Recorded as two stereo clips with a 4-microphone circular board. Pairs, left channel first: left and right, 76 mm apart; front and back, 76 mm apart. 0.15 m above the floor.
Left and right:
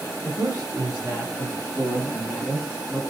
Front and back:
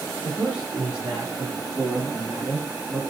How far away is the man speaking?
About 2 m.